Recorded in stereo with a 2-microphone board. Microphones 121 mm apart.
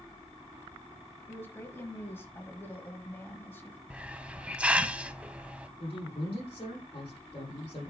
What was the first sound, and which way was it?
A woman speaking, 20° left (ahead or behind).